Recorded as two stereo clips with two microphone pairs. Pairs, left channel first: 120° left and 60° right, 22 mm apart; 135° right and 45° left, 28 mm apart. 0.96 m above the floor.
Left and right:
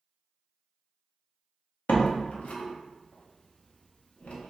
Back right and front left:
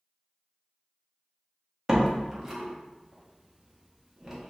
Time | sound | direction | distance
1.9 | a door slam | 110° left | 0.6 m